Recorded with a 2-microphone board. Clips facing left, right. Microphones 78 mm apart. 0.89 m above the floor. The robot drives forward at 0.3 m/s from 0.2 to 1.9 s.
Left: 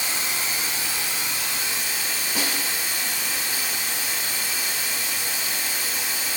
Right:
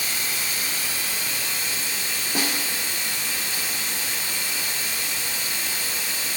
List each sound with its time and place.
0.0 s running water: 25° left (ahead or behind), 1.6 m; by 6.4 s 20° left (ahead or behind), 2 m
2.4 s a snare drum: 50° right (ahead or behind), 1.6 m